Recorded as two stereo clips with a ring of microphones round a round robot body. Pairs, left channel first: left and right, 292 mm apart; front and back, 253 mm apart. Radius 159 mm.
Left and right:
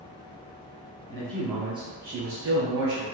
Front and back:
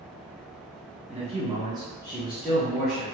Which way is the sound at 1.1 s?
155° left.